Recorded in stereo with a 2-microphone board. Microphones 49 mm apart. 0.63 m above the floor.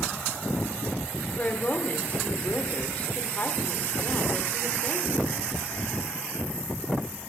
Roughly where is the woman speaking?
Left.